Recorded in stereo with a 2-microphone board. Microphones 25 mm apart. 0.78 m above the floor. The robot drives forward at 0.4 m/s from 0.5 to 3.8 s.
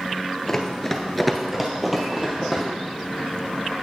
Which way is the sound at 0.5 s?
10° left (ahead or behind).